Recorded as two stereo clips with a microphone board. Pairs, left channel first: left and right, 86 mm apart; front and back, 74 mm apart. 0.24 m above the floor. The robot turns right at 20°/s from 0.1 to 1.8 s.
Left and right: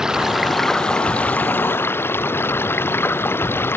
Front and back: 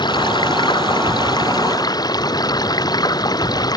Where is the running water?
5° right; by 3.8 s 25° left.